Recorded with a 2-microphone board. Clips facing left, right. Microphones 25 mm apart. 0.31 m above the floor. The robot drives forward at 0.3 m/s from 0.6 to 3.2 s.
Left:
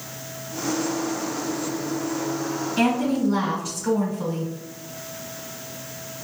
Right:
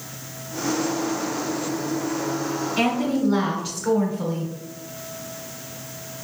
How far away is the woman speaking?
About 1.6 m.